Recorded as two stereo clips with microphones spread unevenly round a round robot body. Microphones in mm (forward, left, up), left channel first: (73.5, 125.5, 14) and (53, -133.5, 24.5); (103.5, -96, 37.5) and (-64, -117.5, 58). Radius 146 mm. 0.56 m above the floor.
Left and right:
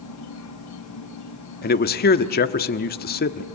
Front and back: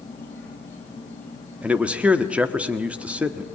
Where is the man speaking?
100° left, 1.1 m.